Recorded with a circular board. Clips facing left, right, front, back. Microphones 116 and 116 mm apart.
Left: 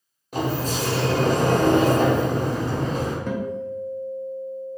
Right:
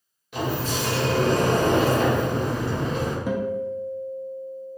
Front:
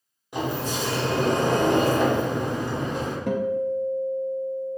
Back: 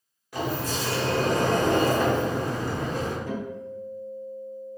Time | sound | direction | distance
0.3 | a sliding door | 60° left | 0.8 m
3.3 | a guitar | 5° right | 0.6 m